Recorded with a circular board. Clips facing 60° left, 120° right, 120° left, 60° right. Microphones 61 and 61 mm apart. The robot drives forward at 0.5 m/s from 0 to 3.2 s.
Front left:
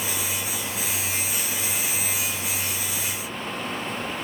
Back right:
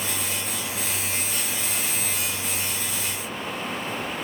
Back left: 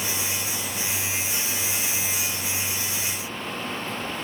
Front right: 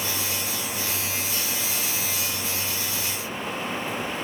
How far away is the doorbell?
No doorbell in this recording.